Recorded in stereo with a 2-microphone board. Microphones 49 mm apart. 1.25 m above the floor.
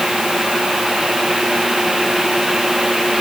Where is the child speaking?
I don't hear a child speaking.